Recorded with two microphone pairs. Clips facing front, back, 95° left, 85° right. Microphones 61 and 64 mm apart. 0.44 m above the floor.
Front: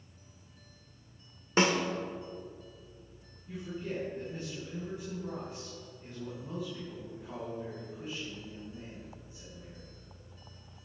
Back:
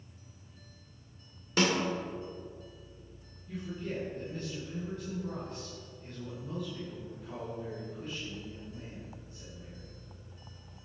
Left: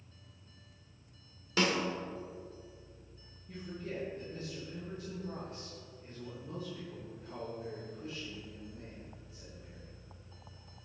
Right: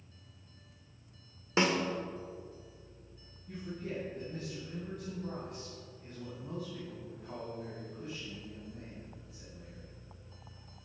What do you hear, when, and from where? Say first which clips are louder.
1.6 s a snare drum: front 1 dB, right 2 dB; 40° right, 1.1 m
3.5 s a man speaking: even, right 2 dB; 70° right, 3 m